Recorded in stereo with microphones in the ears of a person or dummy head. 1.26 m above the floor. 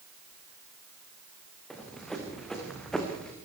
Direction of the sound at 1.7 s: Centre (ahead or behind).